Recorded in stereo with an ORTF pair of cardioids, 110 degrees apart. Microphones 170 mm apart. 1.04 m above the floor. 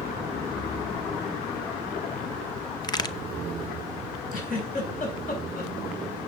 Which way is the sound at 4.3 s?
55° left.